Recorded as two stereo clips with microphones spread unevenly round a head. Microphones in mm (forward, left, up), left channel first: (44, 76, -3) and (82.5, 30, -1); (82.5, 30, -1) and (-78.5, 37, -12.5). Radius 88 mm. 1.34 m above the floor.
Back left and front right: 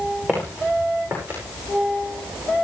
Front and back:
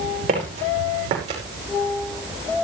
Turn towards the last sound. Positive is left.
turn(degrees=-125)